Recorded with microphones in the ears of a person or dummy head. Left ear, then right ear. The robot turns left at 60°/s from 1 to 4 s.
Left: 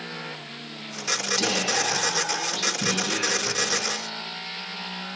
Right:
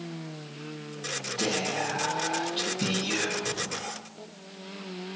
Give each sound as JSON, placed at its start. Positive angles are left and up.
{"t": 1.4, "sound": "whispering", "azimuth_deg": 60, "distance_m": 5.0}